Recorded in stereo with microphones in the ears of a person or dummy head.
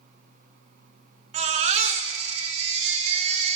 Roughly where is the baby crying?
Right.